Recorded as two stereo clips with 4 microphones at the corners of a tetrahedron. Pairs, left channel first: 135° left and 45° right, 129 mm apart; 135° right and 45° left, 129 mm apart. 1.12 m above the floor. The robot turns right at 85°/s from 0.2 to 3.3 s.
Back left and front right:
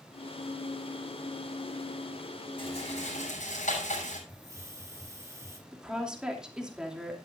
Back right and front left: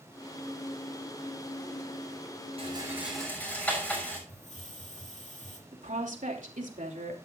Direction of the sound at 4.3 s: 110° right.